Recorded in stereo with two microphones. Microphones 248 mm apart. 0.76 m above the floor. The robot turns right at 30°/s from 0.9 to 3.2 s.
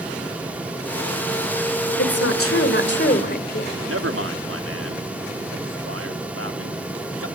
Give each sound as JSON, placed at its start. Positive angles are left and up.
{"t": 2.0, "sound": "a woman speaking", "azimuth_deg": 105, "distance_m": 2.5}
{"t": 3.9, "sound": "a man speaking", "side_deg": -60, "distance_m": 2.0}